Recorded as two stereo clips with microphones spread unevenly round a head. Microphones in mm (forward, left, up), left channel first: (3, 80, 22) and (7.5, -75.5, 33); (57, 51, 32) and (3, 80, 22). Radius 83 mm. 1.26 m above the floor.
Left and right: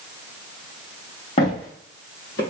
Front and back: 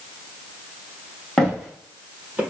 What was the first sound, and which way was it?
Footsteps, 40° left.